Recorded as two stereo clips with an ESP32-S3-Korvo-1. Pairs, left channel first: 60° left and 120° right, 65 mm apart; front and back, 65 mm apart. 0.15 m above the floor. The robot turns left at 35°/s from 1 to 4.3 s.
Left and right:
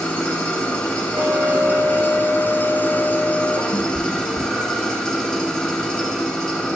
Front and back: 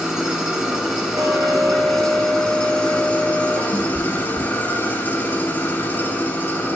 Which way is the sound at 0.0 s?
110° left.